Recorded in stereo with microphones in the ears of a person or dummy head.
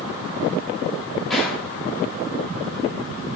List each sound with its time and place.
1.3 s a gunshot: 5° left (ahead or behind), 3 m